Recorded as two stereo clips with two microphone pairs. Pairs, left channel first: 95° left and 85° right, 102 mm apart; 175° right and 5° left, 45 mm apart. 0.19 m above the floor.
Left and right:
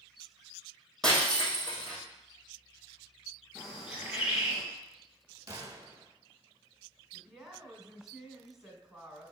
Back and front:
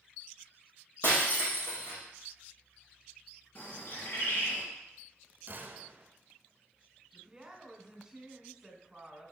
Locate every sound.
1.0 s breaking glass: straight behind, 3 m
3.5 s a bird: 165° right, 3 m
5.5 s a gunshot: 35° right, 0.8 m
7.1 s a woman speaking: straight ahead, 1.5 m